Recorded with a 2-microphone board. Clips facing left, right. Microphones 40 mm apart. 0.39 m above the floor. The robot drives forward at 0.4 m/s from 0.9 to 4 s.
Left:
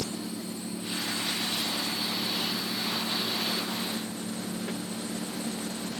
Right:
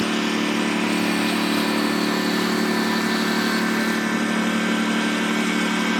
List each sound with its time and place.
0.0 s a lawn mower: 90° right; by 6.0 s 85° right